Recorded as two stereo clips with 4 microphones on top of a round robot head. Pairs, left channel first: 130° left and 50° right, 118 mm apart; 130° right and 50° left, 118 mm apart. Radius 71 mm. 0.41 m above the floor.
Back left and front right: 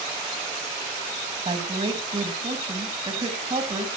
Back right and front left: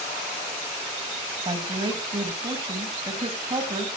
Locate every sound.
1.4 s a woman speaking: straight ahead, 3.5 m